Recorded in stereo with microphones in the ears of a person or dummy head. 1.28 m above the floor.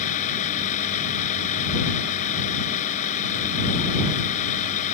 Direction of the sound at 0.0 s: 50° left (ahead or behind).